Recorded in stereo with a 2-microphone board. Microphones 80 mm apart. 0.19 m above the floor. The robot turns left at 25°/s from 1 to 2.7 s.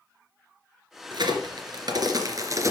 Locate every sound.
1.1 s a crack: 65° right (ahead or behind), 2.5 m; by 2.7 s 40° right (ahead or behind), 2.5 m